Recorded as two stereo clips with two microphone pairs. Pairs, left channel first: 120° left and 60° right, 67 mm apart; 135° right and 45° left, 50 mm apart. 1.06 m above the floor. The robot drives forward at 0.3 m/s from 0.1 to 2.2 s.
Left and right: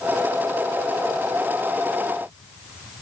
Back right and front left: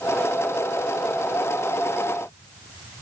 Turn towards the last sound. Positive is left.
No sound to turn to.